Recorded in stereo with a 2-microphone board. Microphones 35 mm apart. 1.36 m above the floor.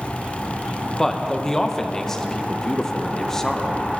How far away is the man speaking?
About 0.7 m.